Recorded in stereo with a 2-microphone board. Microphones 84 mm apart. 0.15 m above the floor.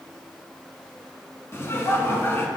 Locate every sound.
1.5 s laughter: 30° left (ahead or behind), 1.2 m